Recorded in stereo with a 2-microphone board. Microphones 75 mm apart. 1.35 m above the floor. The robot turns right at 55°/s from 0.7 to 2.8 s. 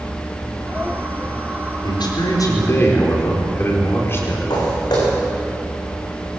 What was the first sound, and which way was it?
A man speaking, 95° left.